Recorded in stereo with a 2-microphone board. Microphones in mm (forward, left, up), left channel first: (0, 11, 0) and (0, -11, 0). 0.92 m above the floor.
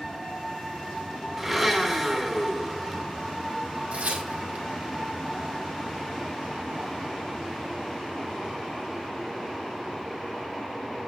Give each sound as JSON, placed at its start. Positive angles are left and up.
{"t": 1.4, "sound": "a blender", "side_deg": -5, "distance_m": 2.5}
{"t": 3.9, "sound": "tearing paper", "side_deg": -65, "distance_m": 1.7}